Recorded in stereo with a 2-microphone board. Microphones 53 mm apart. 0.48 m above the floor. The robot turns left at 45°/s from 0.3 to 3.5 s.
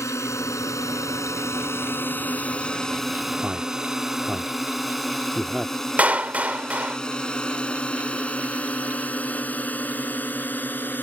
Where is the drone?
70° left (ahead or behind); by 11.0 s 40° left (ahead or behind).